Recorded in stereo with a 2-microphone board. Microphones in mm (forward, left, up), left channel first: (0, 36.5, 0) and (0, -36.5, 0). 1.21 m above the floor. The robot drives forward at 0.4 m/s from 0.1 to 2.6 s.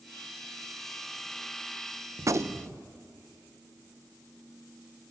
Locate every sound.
2.2 s a gunshot: 45° right (ahead or behind), 0.7 m; by 2.8 s 35° right (ahead or behind), 0.8 m